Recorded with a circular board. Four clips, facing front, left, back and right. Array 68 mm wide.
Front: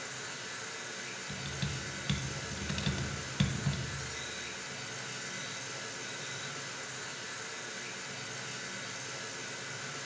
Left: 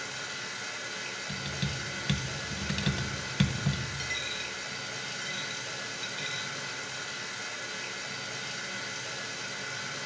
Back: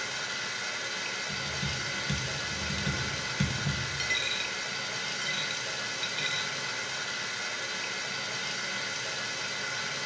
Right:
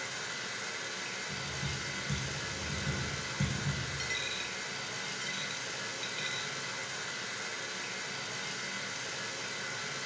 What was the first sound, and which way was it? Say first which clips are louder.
Running water: left 1 dB, back 7 dB; 175° left.